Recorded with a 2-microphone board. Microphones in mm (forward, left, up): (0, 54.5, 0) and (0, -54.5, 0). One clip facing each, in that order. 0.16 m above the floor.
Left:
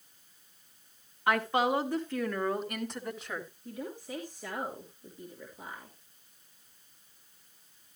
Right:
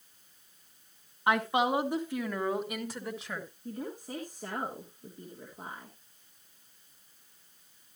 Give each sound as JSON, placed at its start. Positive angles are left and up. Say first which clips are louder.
{"t": 1.3, "sound": "a woman speaking", "louder": "even", "side_deg": -20, "distance_m": 1.8}
{"t": 3.6, "sound": "a woman speaking", "louder": "right 3 dB", "side_deg": -40, "distance_m": 3.0}